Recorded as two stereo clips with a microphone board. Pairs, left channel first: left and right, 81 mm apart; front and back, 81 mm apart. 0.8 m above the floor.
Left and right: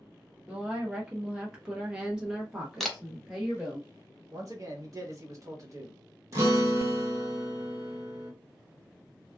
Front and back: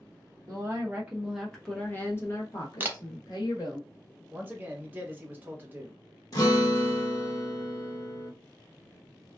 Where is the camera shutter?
Straight behind, 0.6 m.